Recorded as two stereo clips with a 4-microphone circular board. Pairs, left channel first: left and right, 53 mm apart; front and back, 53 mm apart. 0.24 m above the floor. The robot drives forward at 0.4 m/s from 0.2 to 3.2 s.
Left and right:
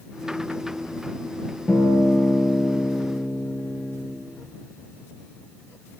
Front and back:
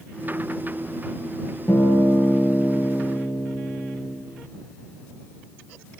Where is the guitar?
10° left, 4.5 m.